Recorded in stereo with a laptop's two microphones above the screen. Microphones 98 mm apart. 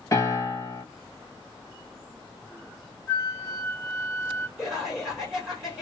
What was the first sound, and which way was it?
A piano, 35° left (ahead or behind).